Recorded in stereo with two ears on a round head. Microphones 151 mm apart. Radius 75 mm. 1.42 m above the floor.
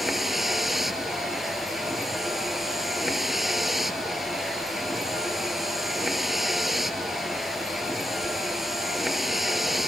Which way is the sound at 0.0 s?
Centre (ahead or behind).